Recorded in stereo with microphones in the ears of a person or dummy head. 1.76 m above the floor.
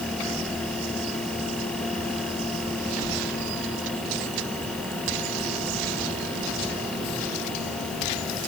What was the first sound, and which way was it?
Only background noise.